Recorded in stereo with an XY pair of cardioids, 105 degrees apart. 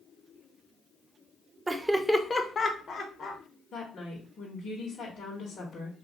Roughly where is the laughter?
Ahead right.